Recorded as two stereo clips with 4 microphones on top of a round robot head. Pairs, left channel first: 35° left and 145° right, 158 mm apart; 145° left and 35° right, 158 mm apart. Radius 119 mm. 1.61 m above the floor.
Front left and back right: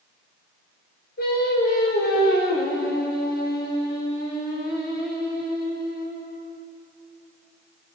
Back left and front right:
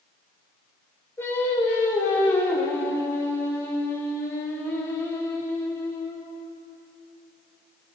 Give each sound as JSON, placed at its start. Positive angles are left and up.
{"t": 1.2, "sound": "singing", "azimuth_deg": 65, "distance_m": 6.5}